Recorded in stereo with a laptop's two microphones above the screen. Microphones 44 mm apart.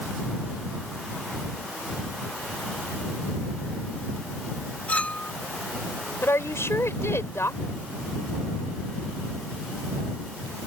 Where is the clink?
35° left (ahead or behind).